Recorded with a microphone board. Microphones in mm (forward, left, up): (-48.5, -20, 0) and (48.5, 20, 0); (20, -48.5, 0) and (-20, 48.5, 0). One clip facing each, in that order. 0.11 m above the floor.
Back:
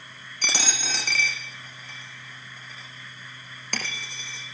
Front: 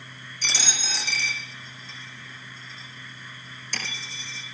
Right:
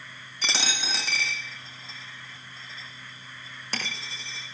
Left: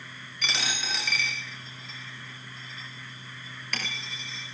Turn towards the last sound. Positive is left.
turn(degrees=-125)